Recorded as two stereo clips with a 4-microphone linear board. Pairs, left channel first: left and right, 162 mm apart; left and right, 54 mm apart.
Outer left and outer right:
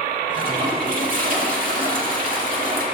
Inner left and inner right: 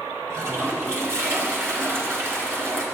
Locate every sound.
0.3 s a toilet flushing: 60° right (ahead or behind), 2 m